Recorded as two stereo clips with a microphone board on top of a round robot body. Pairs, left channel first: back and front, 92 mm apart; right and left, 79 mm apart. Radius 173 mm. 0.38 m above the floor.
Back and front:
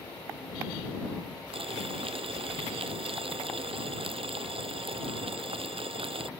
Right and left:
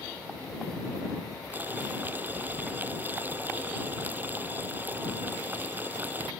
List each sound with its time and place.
1.5 s boiling: 20° left